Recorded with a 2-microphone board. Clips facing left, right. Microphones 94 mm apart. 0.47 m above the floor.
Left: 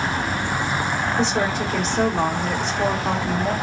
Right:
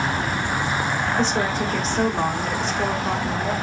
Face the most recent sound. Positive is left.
turn(degrees=5)  # may be behind; listen again after turning